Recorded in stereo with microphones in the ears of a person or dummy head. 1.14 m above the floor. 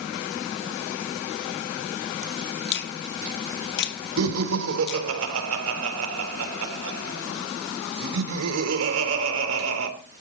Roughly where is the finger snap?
Left.